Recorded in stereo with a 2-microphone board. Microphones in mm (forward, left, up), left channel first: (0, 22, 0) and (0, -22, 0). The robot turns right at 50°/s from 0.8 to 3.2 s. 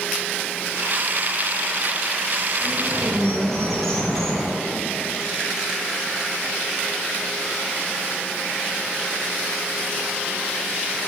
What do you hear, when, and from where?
2.6 s a bird: 15° right (ahead or behind), 1.9 m; by 4.5 s 10° left (ahead or behind), 1.9 m